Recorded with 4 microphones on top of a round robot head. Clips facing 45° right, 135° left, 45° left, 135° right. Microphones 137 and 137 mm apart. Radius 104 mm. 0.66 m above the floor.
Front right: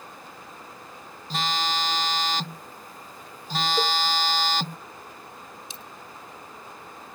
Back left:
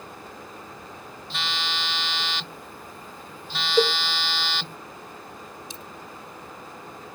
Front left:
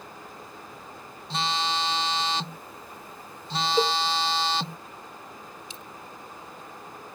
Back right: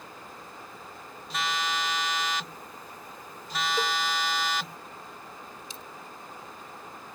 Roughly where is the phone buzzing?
Ahead.